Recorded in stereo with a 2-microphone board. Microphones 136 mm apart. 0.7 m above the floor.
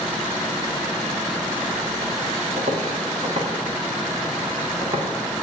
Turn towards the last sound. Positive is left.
turn(degrees=-35)  # may be behind; listen again after turning